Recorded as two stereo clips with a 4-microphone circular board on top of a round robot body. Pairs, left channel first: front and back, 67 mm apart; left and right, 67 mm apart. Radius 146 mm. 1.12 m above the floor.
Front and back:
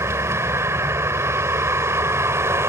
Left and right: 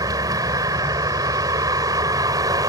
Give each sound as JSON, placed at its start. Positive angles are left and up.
{"t": 0.0, "sound": "a vehicle", "azimuth_deg": -125}